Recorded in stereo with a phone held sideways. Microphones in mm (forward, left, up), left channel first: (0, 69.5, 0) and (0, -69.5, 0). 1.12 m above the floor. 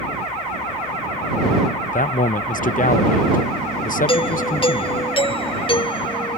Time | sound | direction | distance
1.9 | a man speaking | 75° left (ahead or behind) | ?
4.1 | a doorbell | 40° left (ahead or behind) | ?